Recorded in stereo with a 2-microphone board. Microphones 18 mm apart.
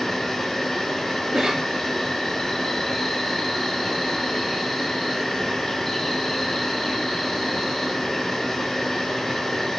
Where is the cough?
50° right (ahead or behind), 1.6 m.